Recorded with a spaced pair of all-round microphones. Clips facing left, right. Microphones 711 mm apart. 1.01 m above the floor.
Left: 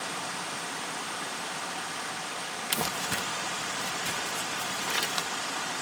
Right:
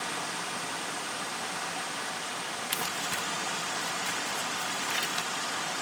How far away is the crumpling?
About 0.7 m.